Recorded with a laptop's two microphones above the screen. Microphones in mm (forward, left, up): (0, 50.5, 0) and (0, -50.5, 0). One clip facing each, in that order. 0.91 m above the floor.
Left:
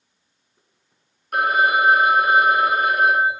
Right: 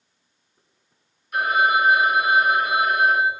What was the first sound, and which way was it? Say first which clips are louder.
A phone ringing: left 1 dB; 55° left (ahead or behind).